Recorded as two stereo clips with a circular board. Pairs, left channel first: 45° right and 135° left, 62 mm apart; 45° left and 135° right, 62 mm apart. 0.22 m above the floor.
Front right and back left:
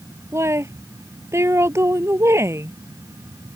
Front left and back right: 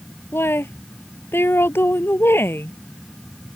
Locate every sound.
0.3 s a woman speaking: 95° left